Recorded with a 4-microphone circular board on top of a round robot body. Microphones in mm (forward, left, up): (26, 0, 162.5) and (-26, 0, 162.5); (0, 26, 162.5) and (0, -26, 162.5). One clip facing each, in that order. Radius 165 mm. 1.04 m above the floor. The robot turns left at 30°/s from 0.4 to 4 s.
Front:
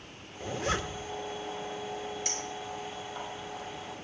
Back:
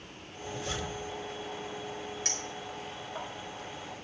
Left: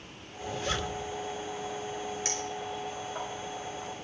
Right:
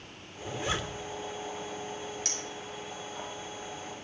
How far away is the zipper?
About 1.4 m.